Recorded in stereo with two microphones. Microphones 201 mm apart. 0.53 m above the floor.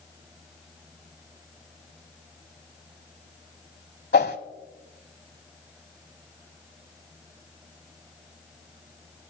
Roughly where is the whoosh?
Left.